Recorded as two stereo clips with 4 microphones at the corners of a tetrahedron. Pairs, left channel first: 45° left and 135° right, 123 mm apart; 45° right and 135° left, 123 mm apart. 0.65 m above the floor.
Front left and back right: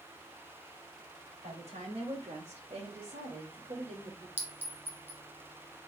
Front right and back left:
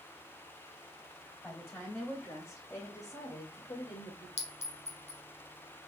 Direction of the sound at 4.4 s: 60° right.